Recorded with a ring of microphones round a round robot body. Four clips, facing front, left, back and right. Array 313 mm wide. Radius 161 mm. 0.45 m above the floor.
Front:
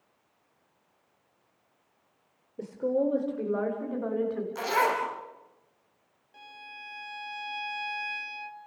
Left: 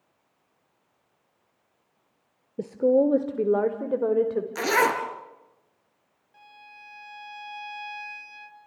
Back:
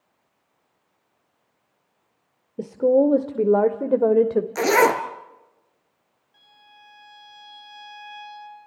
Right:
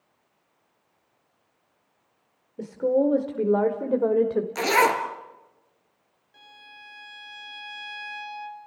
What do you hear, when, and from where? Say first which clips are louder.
2.6 s a woman speaking: left 2 dB, back 10 dB; 140° left, 1.2 m; by 4.5 s 175° right, 1.7 m
4.5 s a zipper: right 2 dB, back 8 dB; 165° left, 1.4 m
6.3 s a violin: left 1 dB, front 6 dB; 35° right, 1.9 m